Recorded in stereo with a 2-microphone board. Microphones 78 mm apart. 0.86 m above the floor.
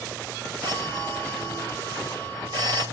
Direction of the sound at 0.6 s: 70° right (ahead or behind).